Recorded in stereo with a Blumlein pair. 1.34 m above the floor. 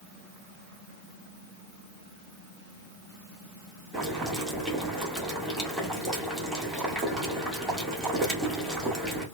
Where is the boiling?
10° right, 1.8 m.